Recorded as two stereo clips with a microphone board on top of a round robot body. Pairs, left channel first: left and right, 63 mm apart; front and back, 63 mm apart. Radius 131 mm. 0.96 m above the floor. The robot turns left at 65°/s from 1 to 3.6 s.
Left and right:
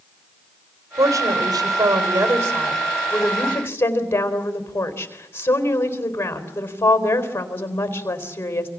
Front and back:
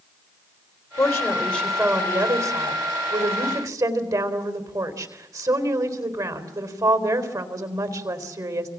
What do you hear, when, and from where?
1.0 s a woman speaking: 40° right, 4 m; by 8.7 s 150° left, 4 m